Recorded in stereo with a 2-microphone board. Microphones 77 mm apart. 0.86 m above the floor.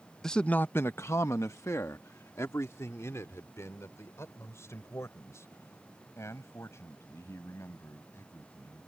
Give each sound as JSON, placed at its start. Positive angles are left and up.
{"t": 0.2, "sound": "a man speaking", "side_deg": 5}